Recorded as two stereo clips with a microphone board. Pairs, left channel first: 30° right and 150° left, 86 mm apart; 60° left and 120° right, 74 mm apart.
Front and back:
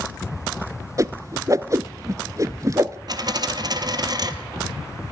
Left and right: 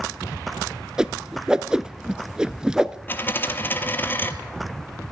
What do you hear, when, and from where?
1.0 s a whoosh: 165° left, 0.6 m
3.1 s a dropped coin: 120° left, 1.3 m